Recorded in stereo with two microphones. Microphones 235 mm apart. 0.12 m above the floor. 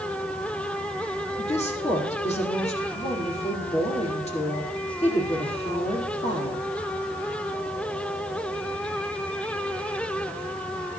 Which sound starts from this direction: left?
A woman speaking, at 1.4 s.